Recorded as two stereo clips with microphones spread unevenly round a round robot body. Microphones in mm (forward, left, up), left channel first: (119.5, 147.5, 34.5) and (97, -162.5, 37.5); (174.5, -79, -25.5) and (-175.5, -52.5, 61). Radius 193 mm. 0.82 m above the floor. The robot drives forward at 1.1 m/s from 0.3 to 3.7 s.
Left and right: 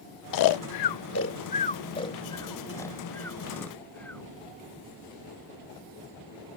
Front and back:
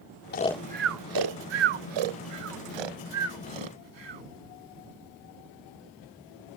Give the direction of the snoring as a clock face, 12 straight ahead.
10 o'clock.